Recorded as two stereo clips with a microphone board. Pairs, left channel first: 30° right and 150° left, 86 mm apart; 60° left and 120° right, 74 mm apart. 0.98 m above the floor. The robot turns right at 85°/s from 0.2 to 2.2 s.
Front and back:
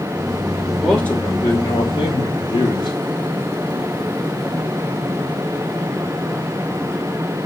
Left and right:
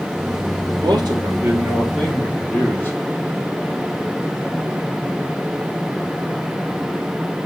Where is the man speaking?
125° right, 3 m; by 3.0 s 5° right, 3 m.